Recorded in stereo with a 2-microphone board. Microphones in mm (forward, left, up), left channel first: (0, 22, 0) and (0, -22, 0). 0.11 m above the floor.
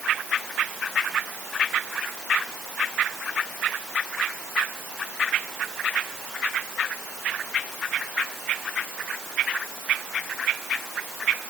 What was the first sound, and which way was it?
Only background noise.